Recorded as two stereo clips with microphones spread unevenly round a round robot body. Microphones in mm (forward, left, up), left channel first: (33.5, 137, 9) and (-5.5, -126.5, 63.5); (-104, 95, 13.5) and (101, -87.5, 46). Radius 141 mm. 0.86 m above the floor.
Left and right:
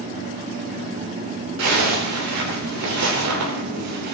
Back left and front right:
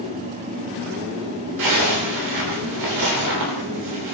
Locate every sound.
1.6 s a zipper: 65° right, 3 m